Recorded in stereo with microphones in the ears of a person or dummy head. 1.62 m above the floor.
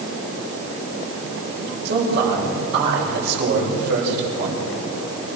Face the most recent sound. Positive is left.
turn(degrees=-60)  # may be behind; listen again after turning